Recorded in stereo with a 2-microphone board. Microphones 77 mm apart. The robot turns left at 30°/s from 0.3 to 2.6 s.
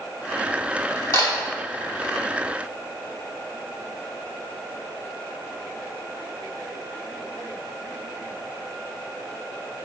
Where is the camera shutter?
45° left (ahead or behind), 3 m; by 1.3 s 40° left (ahead or behind), 3 m.